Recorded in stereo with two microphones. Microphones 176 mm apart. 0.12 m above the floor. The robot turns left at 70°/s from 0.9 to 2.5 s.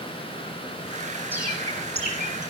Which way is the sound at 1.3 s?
15° right (ahead or behind).